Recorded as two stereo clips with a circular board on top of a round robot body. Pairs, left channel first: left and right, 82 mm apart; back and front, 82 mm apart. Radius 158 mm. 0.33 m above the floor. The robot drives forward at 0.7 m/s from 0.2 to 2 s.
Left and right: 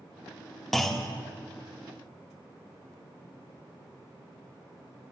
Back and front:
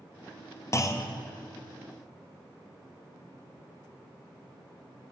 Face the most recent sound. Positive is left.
turn(degrees=180)